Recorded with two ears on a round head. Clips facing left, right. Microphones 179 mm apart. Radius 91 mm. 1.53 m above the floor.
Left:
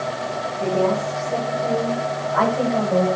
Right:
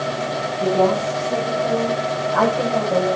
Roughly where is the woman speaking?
Centre.